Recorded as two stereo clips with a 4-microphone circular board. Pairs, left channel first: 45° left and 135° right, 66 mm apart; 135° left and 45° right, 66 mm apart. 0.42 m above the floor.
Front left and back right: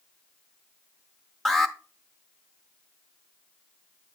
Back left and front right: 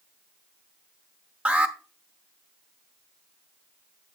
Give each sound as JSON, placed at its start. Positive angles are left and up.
{"t": 1.4, "sound": "an alarm", "azimuth_deg": -35, "distance_m": 0.7}